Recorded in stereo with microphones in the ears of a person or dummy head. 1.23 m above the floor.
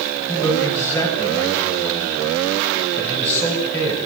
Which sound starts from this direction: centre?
A man speaking, at 0.3 s.